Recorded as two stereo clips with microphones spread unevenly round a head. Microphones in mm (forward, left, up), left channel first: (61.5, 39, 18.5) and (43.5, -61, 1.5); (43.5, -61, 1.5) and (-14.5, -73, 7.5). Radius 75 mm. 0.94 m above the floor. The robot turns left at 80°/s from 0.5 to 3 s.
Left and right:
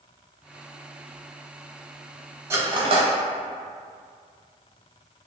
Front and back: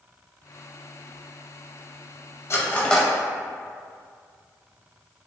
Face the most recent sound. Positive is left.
turn(degrees=-75)